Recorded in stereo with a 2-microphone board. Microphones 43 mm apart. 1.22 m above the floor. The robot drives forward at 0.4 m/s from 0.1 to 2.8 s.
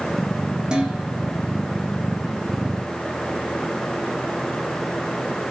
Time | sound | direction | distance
0.7 | dishes clattering | 25° right (ahead or behind) | 3 m